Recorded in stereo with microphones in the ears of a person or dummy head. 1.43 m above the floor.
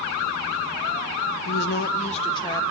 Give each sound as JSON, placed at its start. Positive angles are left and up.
{"t": 1.4, "sound": "a woman speaking", "side_deg": 70, "distance_m": 1.3}